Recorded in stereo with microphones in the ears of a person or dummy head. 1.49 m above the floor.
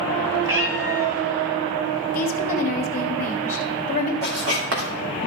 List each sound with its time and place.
0.4 s a cat meowing: 15° right (ahead or behind), 1.8 m
2.1 s a woman speaking: 45° left (ahead or behind), 1.4 m
4.2 s writing: 70° right (ahead or behind), 3 m